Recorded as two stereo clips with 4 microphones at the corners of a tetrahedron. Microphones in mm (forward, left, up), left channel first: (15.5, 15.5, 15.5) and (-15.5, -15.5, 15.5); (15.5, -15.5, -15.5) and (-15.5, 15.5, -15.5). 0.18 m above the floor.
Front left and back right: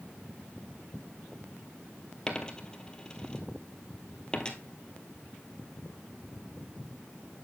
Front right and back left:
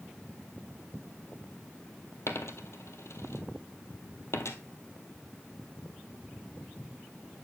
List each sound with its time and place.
2.3 s a dropped coin: 30° right, 1.4 m